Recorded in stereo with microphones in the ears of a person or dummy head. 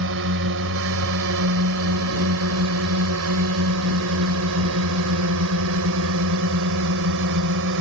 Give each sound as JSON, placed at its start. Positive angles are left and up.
{"t": 0.0, "sound": "a drone", "side_deg": -65}